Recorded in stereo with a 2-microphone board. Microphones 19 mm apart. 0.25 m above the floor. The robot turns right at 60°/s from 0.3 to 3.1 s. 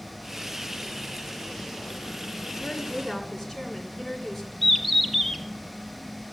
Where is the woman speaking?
145° left, 2.5 m; by 4.5 s 175° left, 2.5 m.